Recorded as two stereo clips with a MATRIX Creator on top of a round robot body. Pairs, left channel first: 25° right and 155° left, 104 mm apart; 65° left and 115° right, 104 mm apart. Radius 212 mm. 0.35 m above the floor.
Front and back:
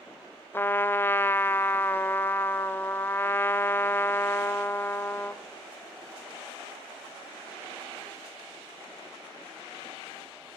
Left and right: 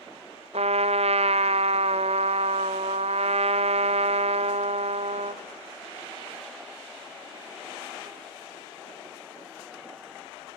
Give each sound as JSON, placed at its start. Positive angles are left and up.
{"t": 0.5, "sound": "a trumpet", "azimuth_deg": -95, "distance_m": 0.7}